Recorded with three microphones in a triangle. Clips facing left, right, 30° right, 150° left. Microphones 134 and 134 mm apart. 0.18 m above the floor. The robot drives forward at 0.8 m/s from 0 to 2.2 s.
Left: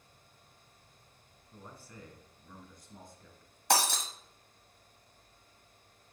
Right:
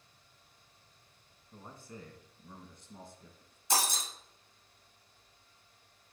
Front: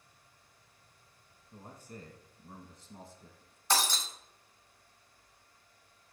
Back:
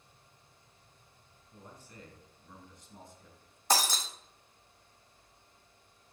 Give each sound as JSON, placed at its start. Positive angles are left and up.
{"t": 1.5, "sound": "a man speaking", "azimuth_deg": -35, "distance_m": 1.9}
{"t": 3.7, "sound": "breaking glass", "azimuth_deg": 105, "distance_m": 1.2}